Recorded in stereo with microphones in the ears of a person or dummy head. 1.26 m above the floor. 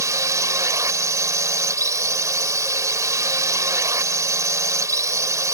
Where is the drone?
10° right (ahead or behind).